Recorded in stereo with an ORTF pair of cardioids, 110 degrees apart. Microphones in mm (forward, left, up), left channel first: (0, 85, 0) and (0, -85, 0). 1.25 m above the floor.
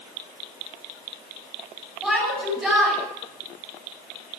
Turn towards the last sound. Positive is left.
turn(degrees=5)